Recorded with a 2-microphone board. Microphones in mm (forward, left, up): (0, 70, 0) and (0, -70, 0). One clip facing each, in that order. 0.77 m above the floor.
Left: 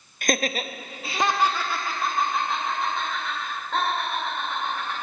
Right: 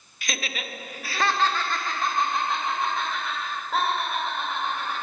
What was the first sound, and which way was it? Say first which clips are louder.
Laughter: left 9 dB; 50° left (ahead or behind).